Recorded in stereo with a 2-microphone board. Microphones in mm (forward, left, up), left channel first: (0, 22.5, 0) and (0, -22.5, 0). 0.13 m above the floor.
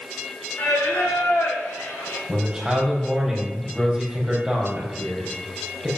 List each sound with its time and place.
0.6 s singing: 85° left, 3.5 m
2.3 s a man speaking: 10° right (ahead or behind), 4 m